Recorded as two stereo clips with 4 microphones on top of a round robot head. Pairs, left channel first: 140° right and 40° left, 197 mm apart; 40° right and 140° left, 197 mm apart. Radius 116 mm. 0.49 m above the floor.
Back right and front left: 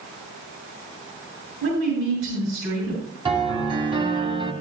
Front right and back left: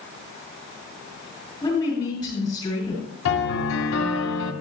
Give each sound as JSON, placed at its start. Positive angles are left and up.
{"t": 1.6, "sound": "a woman speaking", "azimuth_deg": 35, "distance_m": 7.5}
{"t": 3.2, "sound": "a piano", "azimuth_deg": -25, "distance_m": 2.5}